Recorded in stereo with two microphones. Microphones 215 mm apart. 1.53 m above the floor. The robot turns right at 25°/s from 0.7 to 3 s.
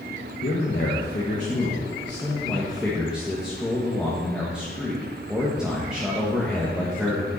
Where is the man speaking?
125° left, 1.6 m; by 7.3 s 175° right, 1.6 m.